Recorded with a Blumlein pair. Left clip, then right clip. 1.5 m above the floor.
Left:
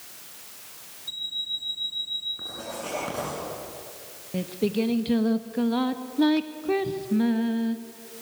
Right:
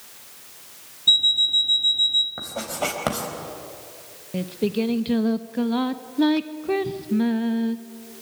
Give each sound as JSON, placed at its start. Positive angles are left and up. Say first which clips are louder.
{"t": 1.1, "sound": "an alarm clock", "louder": "right 14 dB", "azimuth_deg": -50, "distance_m": 2.5}
{"t": 2.4, "sound": "writing", "louder": "right 6 dB", "azimuth_deg": -45, "distance_m": 4.0}
{"t": 4.3, "sound": "singing", "louder": "right 2 dB", "azimuth_deg": -5, "distance_m": 0.9}